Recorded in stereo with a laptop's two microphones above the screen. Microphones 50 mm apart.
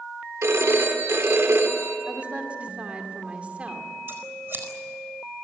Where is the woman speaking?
25° right (ahead or behind), 2.5 m.